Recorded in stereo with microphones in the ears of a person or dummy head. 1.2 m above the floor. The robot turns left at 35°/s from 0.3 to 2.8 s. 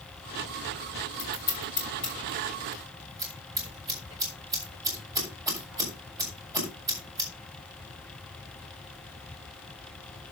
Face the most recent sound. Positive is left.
turn(degrees=-25)  # may be behind; listen again after turning